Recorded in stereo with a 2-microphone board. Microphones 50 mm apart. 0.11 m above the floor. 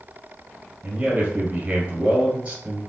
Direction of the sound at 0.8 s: 20° right (ahead or behind).